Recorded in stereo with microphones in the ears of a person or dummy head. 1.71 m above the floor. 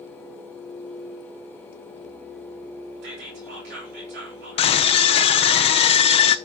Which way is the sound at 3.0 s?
70° right (ahead or behind).